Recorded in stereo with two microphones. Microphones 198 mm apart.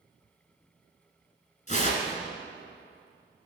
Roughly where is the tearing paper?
Left.